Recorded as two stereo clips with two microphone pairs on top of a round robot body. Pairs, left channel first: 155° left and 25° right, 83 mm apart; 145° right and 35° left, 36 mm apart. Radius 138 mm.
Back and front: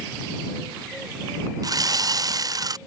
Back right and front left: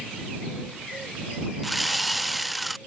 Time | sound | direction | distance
1.6 | sawing | 60° right | ?